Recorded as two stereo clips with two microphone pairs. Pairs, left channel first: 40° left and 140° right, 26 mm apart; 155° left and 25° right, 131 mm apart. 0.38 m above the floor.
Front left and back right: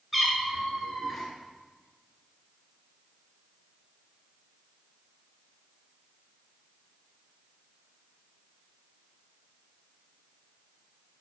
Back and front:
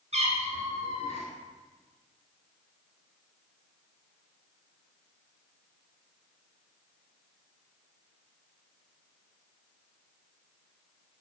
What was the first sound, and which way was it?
A cat meowing, 55° right.